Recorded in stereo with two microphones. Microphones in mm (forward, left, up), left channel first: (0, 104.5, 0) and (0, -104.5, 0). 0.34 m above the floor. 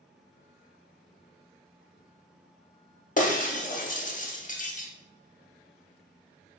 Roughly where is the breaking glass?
Left.